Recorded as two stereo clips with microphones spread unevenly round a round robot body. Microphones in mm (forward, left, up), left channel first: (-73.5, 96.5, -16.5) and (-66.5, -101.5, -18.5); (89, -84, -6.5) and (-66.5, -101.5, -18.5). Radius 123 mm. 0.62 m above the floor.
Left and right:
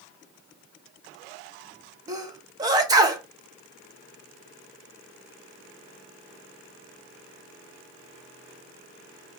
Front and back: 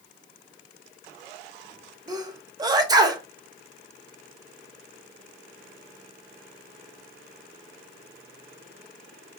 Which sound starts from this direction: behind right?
A sneeze, at 2.1 s.